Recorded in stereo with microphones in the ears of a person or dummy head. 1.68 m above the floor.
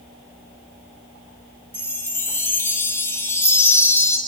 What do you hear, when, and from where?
1.7 s a chime: 10° left (ahead or behind), 1.8 m